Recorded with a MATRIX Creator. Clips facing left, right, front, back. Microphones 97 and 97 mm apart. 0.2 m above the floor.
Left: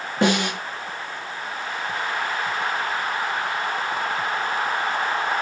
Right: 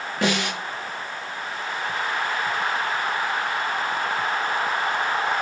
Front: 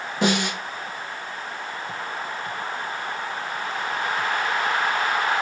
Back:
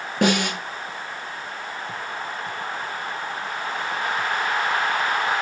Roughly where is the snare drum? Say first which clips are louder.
Left 4 dB, back 2 dB; behind left.